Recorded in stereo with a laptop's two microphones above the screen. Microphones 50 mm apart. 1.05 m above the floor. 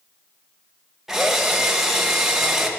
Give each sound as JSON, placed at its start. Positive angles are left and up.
{"t": 1.1, "sound": "a drill", "side_deg": -5, "distance_m": 1.0}